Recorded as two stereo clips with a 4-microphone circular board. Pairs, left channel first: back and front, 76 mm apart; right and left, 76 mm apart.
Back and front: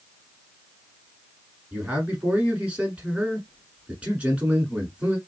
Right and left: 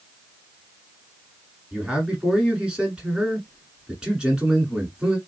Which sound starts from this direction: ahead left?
A man speaking, at 1.7 s.